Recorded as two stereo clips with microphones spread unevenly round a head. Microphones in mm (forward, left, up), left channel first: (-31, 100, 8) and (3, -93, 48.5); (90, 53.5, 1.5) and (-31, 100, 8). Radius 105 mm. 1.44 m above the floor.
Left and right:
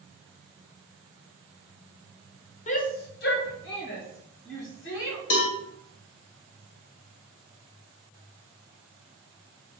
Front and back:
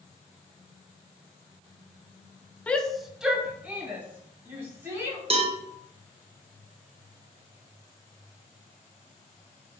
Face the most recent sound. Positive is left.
turn(degrees=115)